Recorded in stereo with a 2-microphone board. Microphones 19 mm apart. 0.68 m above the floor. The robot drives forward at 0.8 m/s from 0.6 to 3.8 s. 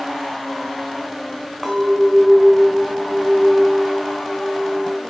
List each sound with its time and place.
1.6 s a clink: 10° right (ahead or behind), 3 m; by 5.0 s 25° right (ahead or behind), 1.2 m